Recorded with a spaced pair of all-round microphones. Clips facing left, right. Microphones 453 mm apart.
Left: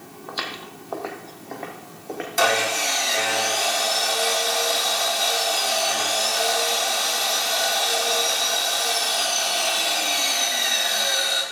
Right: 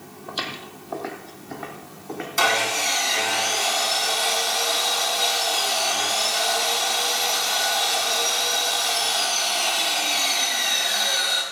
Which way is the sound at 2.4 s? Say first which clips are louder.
Left 4 dB; 20° right (ahead or behind).